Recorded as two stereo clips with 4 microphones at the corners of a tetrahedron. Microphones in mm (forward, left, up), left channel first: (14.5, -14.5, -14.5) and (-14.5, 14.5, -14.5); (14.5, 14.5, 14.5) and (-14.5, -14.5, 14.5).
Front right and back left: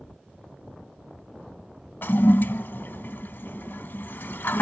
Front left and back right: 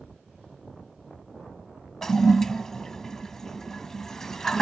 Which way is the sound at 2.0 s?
30° right.